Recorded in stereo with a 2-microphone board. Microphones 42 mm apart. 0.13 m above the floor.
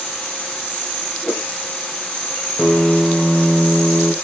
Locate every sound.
1.2 s a whoosh: 20° left (ahead or behind), 3.5 m
2.6 s a piano: 20° right (ahead or behind), 2.5 m